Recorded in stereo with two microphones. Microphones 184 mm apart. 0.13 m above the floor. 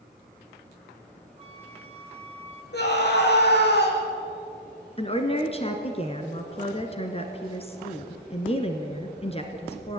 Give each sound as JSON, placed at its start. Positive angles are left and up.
{"t": 1.4, "sound": "a flute", "side_deg": -35, "distance_m": 1.5}
{"t": 2.7, "sound": "a scream", "side_deg": 65, "distance_m": 5.5}
{"t": 5.0, "sound": "a woman speaking", "side_deg": 30, "distance_m": 1.7}